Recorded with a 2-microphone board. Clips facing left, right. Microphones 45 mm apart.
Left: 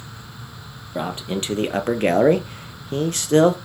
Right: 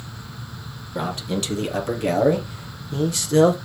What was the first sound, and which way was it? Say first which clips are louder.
A man speaking: even; 25° left (ahead or behind).